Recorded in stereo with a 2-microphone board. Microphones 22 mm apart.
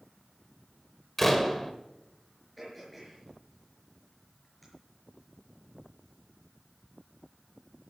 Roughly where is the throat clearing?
Centre.